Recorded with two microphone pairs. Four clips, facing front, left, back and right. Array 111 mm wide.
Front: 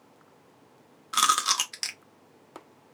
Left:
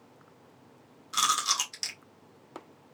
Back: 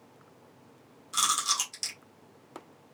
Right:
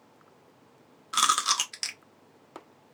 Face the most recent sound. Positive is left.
turn(degrees=-30)